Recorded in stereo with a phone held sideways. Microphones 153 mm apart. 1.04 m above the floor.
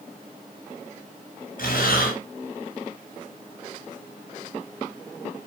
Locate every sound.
1.6 s breathing: 65° left (ahead or behind), 6.5 m